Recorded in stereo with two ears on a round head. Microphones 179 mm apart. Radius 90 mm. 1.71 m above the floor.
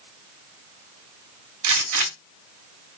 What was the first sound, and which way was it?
A gunshot, 80° right.